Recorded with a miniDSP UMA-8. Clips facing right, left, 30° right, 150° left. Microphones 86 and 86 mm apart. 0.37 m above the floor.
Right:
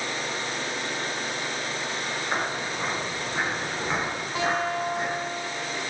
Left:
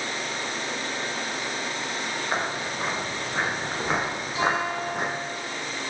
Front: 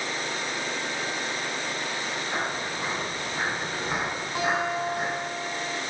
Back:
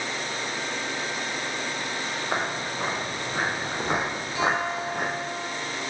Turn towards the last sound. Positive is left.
turn(degrees=-55)